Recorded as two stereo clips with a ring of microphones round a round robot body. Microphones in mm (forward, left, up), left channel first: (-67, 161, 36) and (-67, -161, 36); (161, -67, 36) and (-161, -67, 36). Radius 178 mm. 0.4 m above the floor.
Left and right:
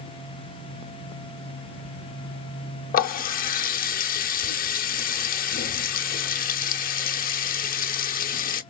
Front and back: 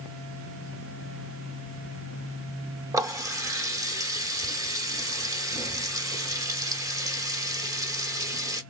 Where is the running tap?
110° left, 0.6 m.